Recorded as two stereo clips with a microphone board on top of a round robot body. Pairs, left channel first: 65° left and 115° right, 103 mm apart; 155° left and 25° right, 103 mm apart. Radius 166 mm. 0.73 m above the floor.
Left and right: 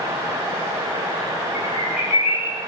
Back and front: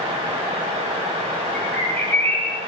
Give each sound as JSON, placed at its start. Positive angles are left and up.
{"t": 1.5, "sound": "a bird", "azimuth_deg": 85, "distance_m": 5.5}